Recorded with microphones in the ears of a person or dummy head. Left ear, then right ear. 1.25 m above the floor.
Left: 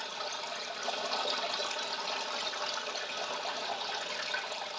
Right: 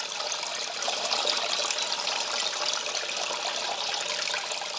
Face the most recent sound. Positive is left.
turn(degrees=-85)